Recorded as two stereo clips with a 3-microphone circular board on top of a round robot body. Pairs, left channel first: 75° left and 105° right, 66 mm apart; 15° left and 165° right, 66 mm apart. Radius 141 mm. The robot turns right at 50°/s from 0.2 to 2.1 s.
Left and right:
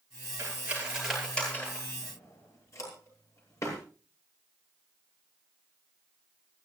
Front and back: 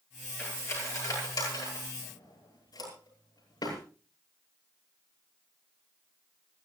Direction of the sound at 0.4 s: 50° right.